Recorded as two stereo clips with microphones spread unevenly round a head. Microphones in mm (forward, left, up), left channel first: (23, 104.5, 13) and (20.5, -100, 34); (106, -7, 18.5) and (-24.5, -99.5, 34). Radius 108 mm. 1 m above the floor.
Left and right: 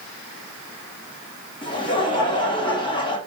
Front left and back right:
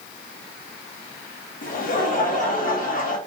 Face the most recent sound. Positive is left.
turn(degrees=30)